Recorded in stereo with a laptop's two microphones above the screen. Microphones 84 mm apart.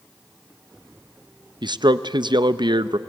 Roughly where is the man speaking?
Right.